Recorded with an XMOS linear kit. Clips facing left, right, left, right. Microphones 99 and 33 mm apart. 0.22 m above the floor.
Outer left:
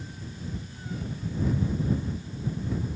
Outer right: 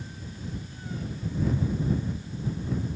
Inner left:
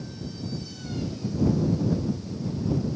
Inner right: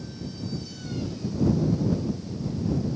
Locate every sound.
Only background noise.